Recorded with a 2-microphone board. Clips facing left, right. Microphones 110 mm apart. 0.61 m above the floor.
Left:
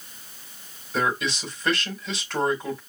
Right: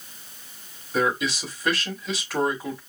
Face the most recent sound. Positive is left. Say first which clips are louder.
# right 2 dB
turn(degrees=-5)  # may be behind; listen again after turning